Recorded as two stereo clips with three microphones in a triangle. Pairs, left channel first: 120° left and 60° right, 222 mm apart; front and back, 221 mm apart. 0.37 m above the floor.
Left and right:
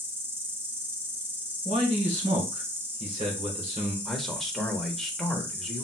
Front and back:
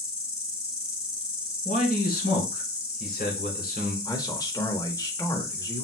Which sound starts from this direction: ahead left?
A man speaking, at 4.0 s.